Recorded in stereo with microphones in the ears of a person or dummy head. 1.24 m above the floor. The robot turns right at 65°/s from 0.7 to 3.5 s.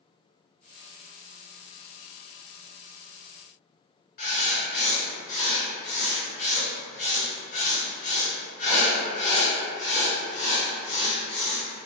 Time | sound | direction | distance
4.2 | writing | 45° left (ahead or behind) | 1.4 m